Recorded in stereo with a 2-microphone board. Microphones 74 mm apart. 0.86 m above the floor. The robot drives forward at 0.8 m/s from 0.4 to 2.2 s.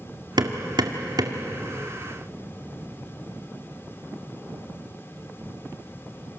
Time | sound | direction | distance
0.4 | hammering | 75° right (ahead or behind) | 2 m